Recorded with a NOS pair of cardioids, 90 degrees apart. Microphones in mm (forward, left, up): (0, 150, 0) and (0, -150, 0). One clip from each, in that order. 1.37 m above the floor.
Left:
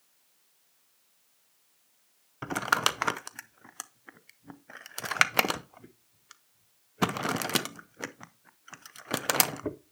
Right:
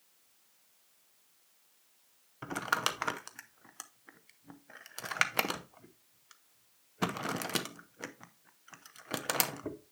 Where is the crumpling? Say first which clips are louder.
Left 6 dB; 25° left, 0.5 m.